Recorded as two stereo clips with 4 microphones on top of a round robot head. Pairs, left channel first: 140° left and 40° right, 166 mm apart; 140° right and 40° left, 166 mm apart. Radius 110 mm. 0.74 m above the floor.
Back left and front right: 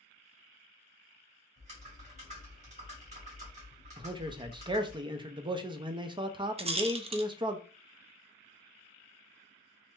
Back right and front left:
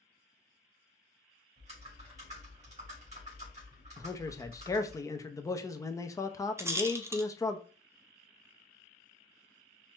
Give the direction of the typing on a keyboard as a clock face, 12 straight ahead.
12 o'clock.